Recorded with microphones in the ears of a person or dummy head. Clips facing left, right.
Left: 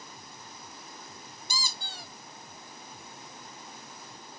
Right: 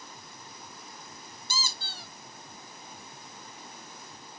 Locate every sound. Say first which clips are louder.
1.5 s a squeak: right 1 dB; 15° left (ahead or behind), 2 m